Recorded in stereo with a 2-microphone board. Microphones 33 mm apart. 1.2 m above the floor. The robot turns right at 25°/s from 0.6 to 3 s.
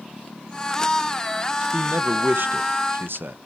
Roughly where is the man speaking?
Behind right.